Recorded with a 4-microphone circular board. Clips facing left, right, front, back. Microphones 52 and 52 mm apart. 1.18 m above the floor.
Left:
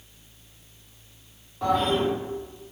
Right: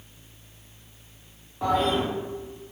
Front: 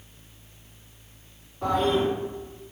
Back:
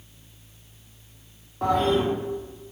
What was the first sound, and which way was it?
A toilet flushing, 170° right.